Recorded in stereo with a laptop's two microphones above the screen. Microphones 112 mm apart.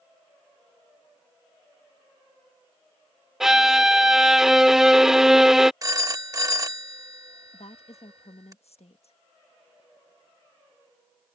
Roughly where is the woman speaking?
Left.